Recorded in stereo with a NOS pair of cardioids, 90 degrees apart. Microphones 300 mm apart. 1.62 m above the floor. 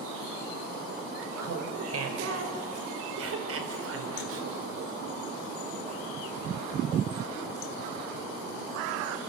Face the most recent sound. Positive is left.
turn(degrees=-45)